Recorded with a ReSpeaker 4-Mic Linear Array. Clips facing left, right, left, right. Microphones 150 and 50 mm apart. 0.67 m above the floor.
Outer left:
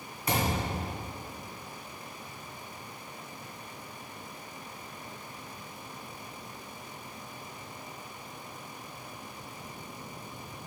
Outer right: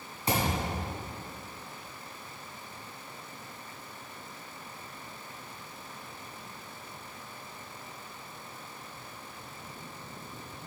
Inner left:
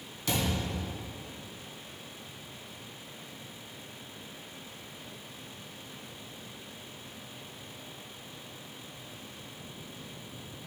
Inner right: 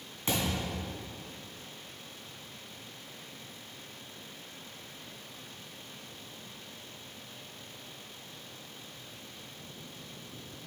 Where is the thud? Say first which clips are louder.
Even, inner left 1 dB; 30° right (ahead or behind), 2.5 m.